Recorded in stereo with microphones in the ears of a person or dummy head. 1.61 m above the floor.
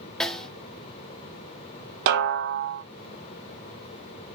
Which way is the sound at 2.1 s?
60° right (ahead or behind).